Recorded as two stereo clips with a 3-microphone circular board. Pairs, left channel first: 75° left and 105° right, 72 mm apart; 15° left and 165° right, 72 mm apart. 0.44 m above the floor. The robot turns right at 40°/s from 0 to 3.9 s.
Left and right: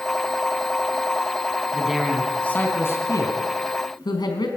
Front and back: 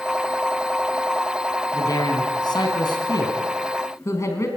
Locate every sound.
1.7 s a man speaking: 25° right, 3 m; by 4.5 s 60° left, 3 m